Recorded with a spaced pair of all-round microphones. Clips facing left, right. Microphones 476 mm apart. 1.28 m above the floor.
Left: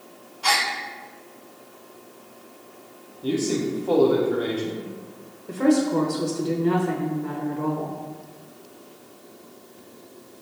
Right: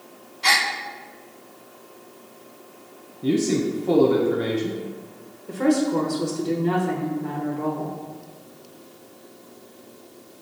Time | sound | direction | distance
0.4 | a gasp | 45° right (ahead or behind) | 0.5 m
3.2 | a man speaking | 45° right (ahead or behind) | 0.6 m
5.5 | a woman speaking | centre (ahead or behind) | 1.0 m